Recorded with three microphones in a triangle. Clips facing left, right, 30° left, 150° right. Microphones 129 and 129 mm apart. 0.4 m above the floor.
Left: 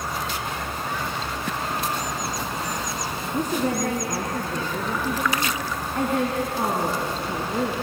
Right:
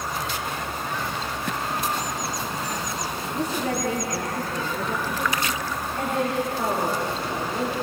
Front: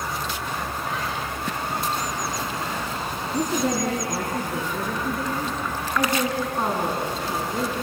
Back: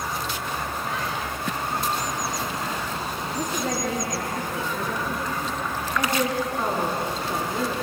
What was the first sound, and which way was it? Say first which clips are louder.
A woman speaking: left 3 dB, front 5 dB; 50° left.